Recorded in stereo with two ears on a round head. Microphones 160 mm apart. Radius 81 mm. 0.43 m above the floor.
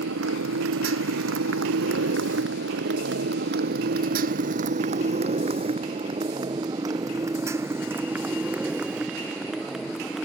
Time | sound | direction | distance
0.0 | a motorcycle | 85° right | ?